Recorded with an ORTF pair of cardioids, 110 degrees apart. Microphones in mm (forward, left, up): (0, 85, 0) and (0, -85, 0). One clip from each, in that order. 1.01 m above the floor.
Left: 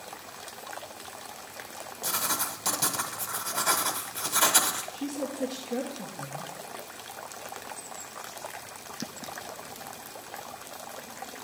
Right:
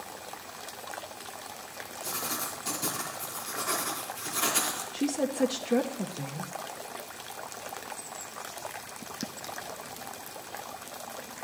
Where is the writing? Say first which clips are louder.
Left 5 dB; 70° left, 1.5 m.